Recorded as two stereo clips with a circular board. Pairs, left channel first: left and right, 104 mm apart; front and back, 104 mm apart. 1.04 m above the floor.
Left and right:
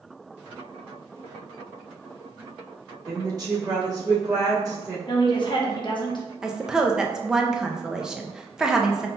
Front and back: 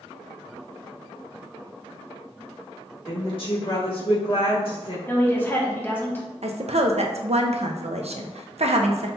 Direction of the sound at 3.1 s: 35° right.